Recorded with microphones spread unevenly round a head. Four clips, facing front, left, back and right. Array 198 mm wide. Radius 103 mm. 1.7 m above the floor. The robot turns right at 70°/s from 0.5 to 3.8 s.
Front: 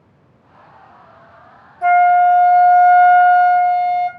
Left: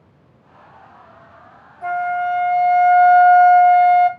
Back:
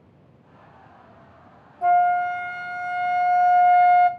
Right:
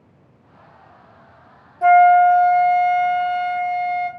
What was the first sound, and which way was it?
A flute, 60° right.